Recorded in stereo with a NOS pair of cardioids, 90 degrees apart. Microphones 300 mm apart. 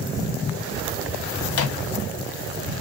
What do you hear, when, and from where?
1.5 s a microwave: 55° left, 0.6 m